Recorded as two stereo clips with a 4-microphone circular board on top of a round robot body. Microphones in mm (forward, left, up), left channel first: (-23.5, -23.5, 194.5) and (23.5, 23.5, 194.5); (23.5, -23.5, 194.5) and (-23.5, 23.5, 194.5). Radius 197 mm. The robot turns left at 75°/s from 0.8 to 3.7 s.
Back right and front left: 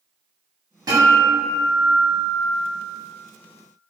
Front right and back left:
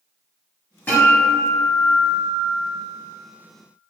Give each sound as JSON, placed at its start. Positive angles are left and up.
{"t": 0.9, "sound": "a guitar", "azimuth_deg": 20, "distance_m": 1.2}